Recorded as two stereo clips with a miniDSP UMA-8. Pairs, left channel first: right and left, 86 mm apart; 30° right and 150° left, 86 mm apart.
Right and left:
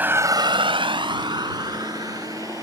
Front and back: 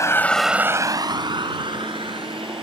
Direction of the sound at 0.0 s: 20° left.